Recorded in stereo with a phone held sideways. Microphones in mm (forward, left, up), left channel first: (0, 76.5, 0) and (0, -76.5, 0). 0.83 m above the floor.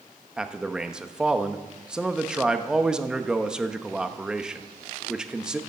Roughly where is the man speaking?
Centre.